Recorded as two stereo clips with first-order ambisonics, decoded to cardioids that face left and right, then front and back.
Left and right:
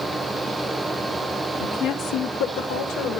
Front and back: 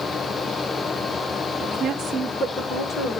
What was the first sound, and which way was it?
A woman speaking, 125° left.